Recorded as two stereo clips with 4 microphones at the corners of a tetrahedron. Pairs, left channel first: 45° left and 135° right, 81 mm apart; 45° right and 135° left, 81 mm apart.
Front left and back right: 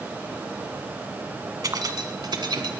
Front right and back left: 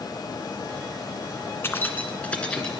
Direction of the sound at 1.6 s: 100° right.